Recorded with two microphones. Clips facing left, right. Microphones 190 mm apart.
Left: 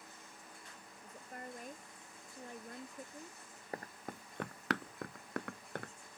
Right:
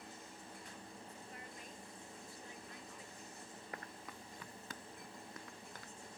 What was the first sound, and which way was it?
A woman speaking, 50° left (ahead or behind).